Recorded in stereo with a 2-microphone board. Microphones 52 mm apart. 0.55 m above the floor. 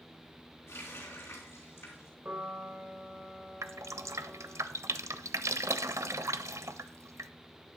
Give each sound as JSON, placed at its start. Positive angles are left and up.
{"t": 0.7, "sound": "a running tap", "side_deg": 60, "distance_m": 4.0}
{"t": 2.2, "sound": "a piano", "side_deg": -40, "distance_m": 2.5}
{"t": 3.6, "sound": "dripping", "side_deg": -75, "distance_m": 0.5}